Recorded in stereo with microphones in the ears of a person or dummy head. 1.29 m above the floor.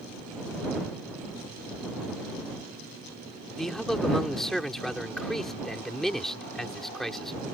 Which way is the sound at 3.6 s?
Centre (ahead or behind).